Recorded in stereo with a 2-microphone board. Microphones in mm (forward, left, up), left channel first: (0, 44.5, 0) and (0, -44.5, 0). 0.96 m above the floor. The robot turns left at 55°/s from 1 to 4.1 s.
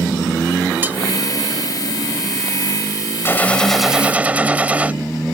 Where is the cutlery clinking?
20° right (ahead or behind).